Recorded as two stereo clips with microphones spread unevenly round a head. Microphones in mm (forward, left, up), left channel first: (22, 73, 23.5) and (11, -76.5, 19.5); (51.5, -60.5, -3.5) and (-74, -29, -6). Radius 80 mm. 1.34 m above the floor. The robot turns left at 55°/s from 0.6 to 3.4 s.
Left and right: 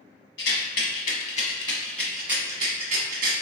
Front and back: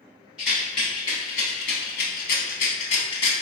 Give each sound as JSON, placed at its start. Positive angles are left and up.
{"t": 0.4, "sound": "a rattle", "azimuth_deg": 80, "distance_m": 1.0}